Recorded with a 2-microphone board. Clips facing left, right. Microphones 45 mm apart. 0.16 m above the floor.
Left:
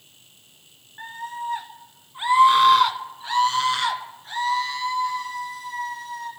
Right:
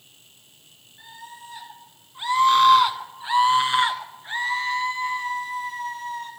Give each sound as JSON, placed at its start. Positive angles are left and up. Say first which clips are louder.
{"t": 1.0, "sound": "a scream", "louder": "left 10 dB", "side_deg": 50, "distance_m": 1.6}